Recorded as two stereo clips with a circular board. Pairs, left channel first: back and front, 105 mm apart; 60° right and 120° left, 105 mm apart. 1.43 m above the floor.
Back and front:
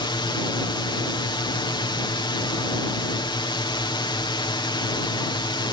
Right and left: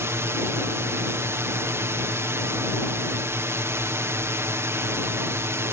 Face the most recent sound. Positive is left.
turn(degrees=175)